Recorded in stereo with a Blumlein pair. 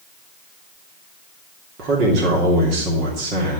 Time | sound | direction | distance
1.8 | a man speaking | 35° right | 3 m